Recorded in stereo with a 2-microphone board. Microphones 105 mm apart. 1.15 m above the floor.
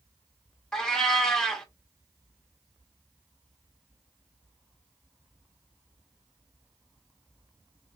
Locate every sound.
0.7 s a cat meowing: 5° left (ahead or behind), 0.8 m